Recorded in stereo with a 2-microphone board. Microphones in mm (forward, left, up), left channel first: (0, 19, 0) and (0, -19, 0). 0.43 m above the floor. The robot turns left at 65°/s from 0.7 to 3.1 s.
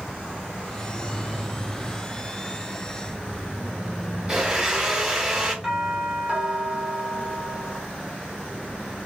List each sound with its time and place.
4.3 s a blender: 15° right (ahead or behind), 1.2 m
5.6 s a doorbell: 15° right (ahead or behind), 1.2 m